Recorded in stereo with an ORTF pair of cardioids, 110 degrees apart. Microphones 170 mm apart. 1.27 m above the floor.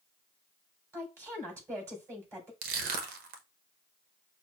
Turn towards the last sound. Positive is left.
turn(degrees=-70)